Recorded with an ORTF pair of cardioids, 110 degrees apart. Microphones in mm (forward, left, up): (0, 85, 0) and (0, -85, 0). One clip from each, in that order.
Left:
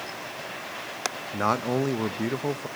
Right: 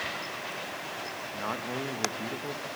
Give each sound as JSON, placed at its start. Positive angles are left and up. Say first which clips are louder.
{"t": 1.3, "sound": "a man speaking", "louder": "left 9 dB", "azimuth_deg": 50, "distance_m": 1.2}